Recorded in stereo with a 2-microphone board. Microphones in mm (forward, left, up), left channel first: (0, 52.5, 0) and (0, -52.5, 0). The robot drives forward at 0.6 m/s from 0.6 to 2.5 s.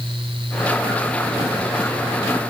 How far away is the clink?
I don't hear a clink.